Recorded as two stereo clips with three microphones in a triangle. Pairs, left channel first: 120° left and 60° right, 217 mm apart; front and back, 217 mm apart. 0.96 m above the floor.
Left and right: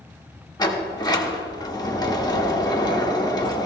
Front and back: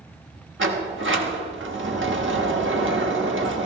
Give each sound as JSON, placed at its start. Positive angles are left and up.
{"t": 0.6, "sound": "a sliding door", "azimuth_deg": -170, "distance_m": 1.1}